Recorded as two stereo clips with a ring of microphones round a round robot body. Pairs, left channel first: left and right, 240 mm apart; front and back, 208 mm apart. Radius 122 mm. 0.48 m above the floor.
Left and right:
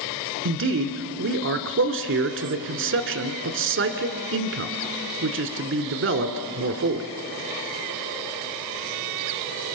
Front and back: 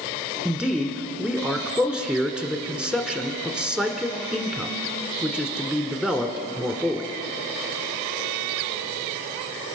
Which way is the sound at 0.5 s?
95° right.